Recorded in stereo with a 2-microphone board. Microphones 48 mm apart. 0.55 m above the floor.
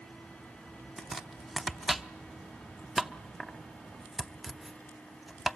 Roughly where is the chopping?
Centre.